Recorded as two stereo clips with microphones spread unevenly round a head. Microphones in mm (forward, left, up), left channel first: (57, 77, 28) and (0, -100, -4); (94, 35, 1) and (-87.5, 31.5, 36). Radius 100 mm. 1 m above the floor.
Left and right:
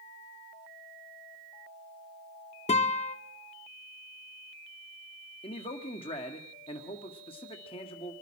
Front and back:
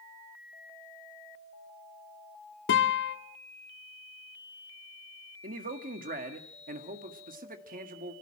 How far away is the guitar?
About 1.5 m.